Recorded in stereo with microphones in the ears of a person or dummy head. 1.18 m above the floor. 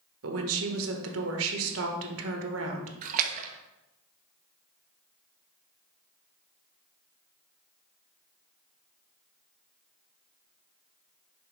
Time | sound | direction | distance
0.2 | a woman speaking | 70° right (ahead or behind) | 1.2 m
3.0 | a splash | 45° right (ahead or behind) | 0.7 m